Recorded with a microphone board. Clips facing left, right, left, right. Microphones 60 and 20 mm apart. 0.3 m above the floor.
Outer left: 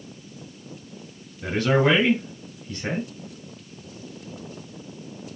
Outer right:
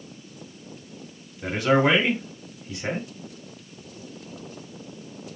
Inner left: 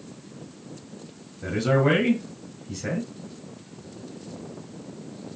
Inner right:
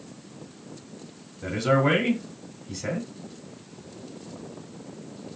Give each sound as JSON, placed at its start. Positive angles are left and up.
{"t": 1.4, "sound": "a man speaking", "side_deg": -15, "distance_m": 1.6}